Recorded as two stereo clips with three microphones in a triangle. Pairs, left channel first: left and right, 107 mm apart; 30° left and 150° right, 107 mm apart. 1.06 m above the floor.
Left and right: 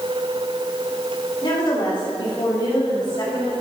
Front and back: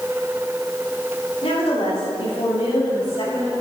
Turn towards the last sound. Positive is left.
turn(degrees=50)